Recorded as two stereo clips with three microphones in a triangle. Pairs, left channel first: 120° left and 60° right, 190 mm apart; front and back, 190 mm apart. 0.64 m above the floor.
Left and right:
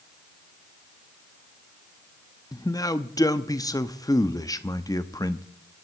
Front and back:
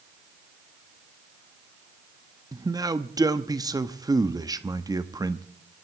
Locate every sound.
2.5 s a man speaking: 150° left, 0.8 m